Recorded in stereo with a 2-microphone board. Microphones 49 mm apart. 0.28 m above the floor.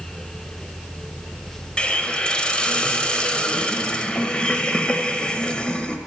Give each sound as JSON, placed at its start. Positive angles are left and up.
{"t": 1.8, "sound": "a hiss", "side_deg": 20, "distance_m": 0.6}